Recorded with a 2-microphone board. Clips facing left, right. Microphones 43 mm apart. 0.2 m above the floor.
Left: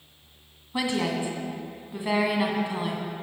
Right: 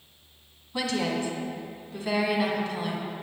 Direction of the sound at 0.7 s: 20° left (ahead or behind).